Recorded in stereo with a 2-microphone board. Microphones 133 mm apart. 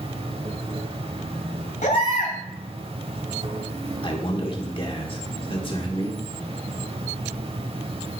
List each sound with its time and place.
0.0 s an insect: 50° right (ahead or behind), 0.9 m
1.8 s a baby crying: 80° left, 2.0 m
4.0 s a man speaking: 40° left (ahead or behind), 1.4 m